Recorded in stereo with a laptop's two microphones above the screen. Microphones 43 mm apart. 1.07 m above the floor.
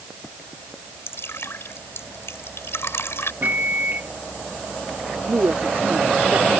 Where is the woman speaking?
85° right.